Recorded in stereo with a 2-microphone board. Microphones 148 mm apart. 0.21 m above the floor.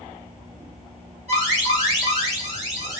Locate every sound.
1.3 s an alarm: 50° right (ahead or behind), 2.5 m